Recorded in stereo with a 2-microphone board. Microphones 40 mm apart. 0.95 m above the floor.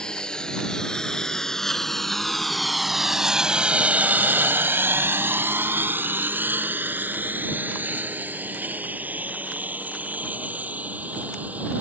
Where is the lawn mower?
20° left (ahead or behind); by 11.8 s 40° right (ahead or behind).